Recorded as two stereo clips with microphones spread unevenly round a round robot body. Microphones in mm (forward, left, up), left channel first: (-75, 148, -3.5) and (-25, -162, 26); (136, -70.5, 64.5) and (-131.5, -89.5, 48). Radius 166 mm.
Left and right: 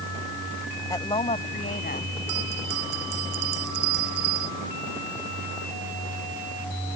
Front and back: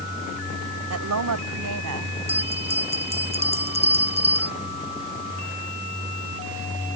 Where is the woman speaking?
175° left; by 2.1 s 160° left.